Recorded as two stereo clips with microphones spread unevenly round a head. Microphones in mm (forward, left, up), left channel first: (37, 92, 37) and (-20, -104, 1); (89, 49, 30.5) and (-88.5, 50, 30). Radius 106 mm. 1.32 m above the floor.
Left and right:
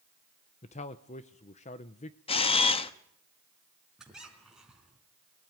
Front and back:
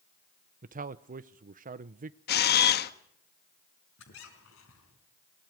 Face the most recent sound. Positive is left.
turn(degrees=-15)